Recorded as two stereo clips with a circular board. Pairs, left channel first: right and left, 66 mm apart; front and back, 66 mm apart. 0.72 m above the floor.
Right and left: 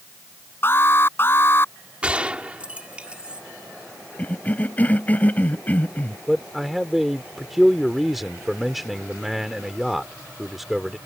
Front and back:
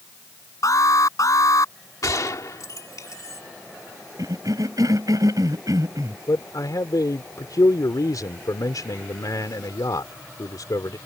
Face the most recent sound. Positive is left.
turn(degrees=5)